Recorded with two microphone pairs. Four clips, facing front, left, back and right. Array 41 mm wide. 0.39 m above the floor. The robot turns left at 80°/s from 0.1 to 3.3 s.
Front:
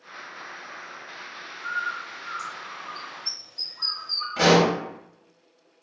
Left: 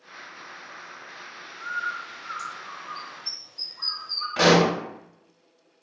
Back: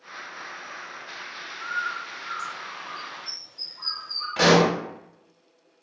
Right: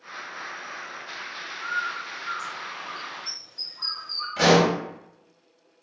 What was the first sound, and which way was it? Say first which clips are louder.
A bird: right 1 dB, even; 135° left.